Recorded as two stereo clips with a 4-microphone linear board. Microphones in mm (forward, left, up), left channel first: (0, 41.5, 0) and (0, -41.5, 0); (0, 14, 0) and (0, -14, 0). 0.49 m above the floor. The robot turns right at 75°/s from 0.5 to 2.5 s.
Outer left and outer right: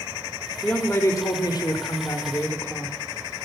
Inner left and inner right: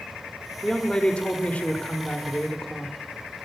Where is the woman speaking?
10° left, 1.3 m; by 3.0 s 155° left, 1.3 m.